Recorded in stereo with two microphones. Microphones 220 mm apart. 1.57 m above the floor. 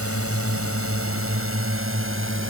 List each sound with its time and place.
0.0 s a drone: 80° right; by 2.5 s 60° right (ahead or behind)